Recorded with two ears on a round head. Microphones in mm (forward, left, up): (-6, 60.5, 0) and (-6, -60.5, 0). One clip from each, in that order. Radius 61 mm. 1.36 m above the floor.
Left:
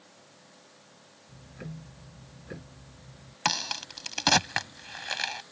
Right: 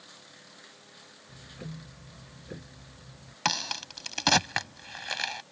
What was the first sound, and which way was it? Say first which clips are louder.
Ticking: even; 30° left (ahead or behind).